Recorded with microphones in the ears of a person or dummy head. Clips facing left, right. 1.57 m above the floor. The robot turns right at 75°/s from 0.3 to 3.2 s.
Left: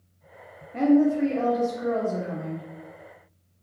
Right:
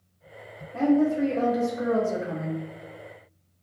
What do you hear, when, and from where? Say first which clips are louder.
0.7 s a woman speaking: left 2 dB; 150° left, 0.8 m; by 2.6 s 70° right, 0.8 m